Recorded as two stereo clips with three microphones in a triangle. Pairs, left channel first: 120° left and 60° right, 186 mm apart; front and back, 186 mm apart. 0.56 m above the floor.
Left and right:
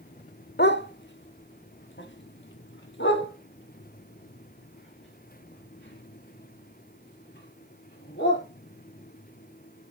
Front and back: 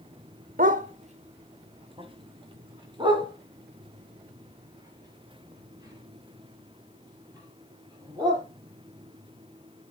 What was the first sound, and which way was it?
A dog barking, 140° left.